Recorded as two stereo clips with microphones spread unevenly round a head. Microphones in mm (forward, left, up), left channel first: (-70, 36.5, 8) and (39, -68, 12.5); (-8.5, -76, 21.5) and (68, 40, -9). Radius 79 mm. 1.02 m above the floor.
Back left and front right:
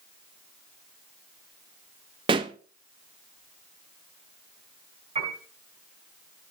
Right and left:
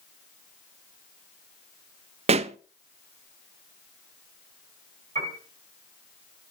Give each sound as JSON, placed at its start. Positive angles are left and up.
{"t": 2.3, "sound": "a pop", "azimuth_deg": 20, "distance_m": 0.7}
{"t": 5.2, "sound": "a piano", "azimuth_deg": 15, "distance_m": 4.5}